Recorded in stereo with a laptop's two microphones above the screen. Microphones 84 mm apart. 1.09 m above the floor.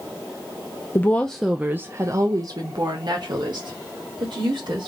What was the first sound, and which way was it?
A woman speaking, 30° left (ahead or behind).